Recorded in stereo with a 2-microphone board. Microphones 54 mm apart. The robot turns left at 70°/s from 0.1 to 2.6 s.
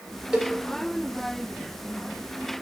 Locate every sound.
0.3 s a cowbell: 15° right (ahead or behind), 3.5 m; by 0.5 s centre (ahead or behind), 3.5 m